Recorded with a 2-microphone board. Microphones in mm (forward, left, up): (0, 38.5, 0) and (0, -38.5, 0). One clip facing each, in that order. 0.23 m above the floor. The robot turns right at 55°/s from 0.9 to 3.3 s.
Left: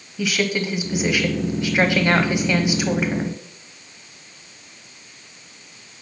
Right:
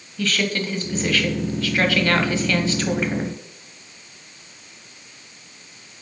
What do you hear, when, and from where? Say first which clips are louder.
0.2 s a woman speaking: left 1 dB; 10° left (ahead or behind), 1.0 m; by 3.4 s 5° left (ahead or behind), 1.0 m